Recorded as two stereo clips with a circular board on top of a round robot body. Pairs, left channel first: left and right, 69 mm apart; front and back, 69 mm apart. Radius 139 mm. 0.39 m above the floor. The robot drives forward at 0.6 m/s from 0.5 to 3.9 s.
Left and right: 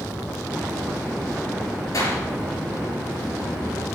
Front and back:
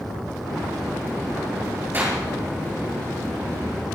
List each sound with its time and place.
1.9 s a clap: 120° left, 7 m; by 2.2 s 125° left, 7 m